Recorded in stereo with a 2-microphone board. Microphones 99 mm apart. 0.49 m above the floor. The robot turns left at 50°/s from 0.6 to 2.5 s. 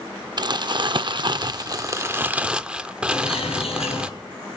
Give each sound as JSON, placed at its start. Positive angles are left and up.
{"t": 0.4, "sound": "crumpling", "azimuth_deg": -70, "distance_m": 0.5}
{"t": 3.1, "sound": "a bird", "side_deg": 85, "distance_m": 4.0}